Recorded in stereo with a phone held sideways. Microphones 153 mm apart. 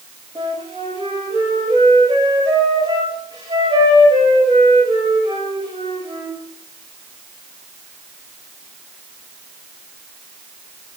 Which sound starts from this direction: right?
A flute, at 0.3 s.